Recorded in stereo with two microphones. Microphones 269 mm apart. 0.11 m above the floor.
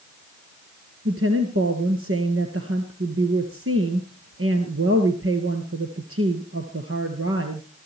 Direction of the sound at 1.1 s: 55° right (ahead or behind).